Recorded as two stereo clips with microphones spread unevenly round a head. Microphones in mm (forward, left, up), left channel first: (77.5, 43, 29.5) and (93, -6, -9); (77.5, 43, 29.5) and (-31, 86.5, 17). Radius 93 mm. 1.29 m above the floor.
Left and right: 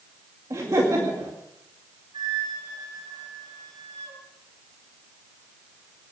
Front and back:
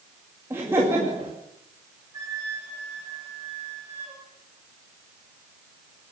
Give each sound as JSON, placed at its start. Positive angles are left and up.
{"t": 0.5, "sound": "laughter", "azimuth_deg": -125, "distance_m": 2.0}
{"t": 2.1, "sound": "a flute", "azimuth_deg": -125, "distance_m": 2.5}